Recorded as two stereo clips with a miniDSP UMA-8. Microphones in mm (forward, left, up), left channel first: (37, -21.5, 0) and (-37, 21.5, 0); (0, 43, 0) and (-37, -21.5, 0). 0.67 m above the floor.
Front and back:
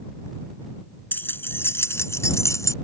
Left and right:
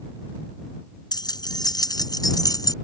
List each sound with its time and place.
1.1 s keys jangling: 40° left; by 2.7 s 25° left